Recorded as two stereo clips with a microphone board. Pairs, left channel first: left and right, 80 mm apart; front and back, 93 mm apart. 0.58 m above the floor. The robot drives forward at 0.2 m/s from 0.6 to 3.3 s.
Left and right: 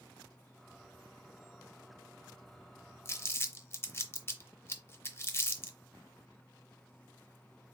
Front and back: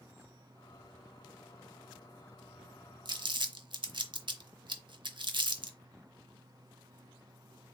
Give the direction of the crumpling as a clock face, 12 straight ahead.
7 o'clock.